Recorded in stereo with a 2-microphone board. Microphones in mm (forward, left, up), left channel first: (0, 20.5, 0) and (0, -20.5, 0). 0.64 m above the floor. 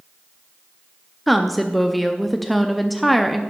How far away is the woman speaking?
About 0.6 m.